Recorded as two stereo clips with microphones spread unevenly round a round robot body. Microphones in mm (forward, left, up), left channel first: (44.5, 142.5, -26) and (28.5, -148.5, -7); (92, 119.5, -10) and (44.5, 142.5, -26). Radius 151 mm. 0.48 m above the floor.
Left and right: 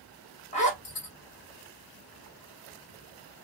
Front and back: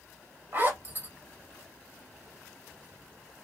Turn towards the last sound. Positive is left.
turn(degrees=145)